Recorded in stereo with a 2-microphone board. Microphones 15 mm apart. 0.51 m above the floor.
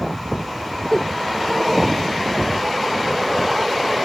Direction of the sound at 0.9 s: 30° left (ahead or behind).